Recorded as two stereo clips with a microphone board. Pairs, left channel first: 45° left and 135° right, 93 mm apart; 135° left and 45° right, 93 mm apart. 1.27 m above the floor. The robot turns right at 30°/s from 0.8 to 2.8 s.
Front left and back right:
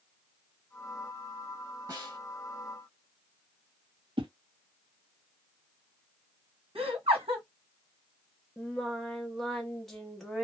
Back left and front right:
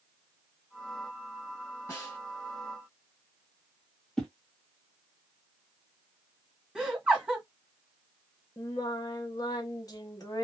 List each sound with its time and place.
1.9 s a snare drum: 170° right, 1.4 m; by 2.2 s 160° right, 1.4 m
4.2 s a whoosh: 140° right, 0.9 m
6.8 s laughter: 130° right, 1.3 m
8.6 s singing: 130° left, 0.8 m